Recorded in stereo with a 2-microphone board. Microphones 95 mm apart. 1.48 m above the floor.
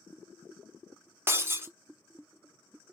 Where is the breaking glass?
25° right (ahead or behind), 0.6 m.